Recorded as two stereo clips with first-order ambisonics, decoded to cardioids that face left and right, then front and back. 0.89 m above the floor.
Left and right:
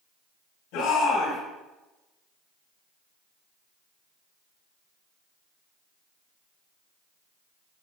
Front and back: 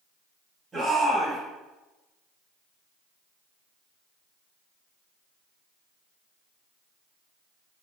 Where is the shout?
100° left, 6.5 m.